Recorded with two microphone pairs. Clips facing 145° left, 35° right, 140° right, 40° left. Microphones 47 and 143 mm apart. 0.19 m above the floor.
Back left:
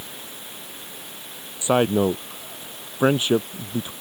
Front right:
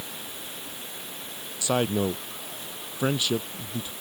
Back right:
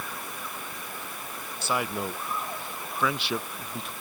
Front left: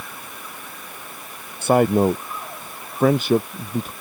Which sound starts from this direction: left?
A man speaking, at 1.6 s.